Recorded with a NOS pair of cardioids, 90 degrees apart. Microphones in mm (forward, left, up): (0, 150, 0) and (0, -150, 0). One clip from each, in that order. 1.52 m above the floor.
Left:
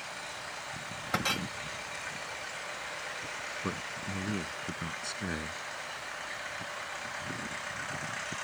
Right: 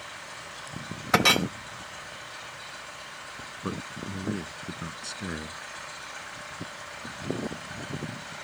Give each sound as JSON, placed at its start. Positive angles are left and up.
{"t": 1.1, "sound": "a clink", "azimuth_deg": -65}
{"t": 3.6, "sound": "a man speaking", "azimuth_deg": -10}